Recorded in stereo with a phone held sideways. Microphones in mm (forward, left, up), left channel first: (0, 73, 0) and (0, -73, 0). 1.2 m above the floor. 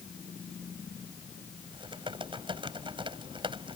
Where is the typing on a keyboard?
35° right (ahead or behind).